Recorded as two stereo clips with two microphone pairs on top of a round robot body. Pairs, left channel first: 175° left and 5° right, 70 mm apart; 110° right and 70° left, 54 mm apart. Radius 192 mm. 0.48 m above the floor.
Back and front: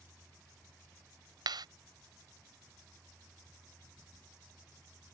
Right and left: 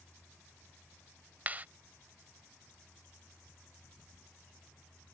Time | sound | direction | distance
1.5 | a clap | 10° left | ?